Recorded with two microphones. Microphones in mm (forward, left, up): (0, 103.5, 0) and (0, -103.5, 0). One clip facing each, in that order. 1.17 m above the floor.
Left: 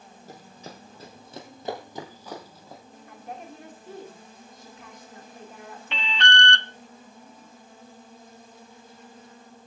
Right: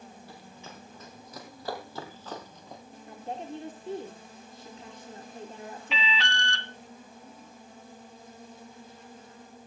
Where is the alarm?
5° right (ahead or behind), 0.7 m.